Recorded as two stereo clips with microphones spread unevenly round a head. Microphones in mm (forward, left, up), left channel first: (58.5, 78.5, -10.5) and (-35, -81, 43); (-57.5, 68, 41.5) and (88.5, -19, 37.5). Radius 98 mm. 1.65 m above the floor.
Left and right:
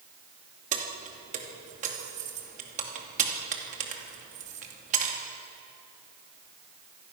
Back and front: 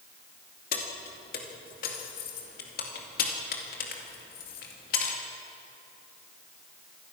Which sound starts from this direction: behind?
Keys jangling, at 0.7 s.